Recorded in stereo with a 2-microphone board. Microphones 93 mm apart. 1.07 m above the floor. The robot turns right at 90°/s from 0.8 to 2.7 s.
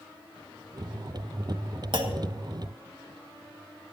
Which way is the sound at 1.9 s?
55° right (ahead or behind).